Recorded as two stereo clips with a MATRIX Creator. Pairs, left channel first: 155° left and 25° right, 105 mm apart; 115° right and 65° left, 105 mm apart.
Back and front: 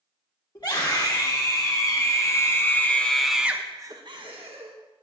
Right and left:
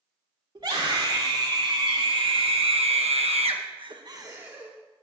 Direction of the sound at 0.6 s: 115° left.